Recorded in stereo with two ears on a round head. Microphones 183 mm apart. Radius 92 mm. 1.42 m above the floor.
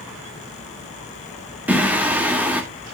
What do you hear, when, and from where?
1.7 s singing: 5° right (ahead or behind), 2 m